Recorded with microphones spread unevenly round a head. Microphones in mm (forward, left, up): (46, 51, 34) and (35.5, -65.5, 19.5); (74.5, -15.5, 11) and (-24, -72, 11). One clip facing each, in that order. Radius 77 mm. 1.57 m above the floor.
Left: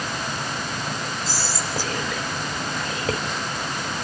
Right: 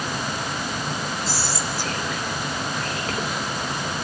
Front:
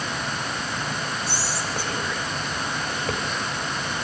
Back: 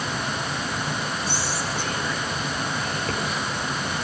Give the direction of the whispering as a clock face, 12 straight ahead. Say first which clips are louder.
Right 1 dB, back 1 dB; 8 o'clock.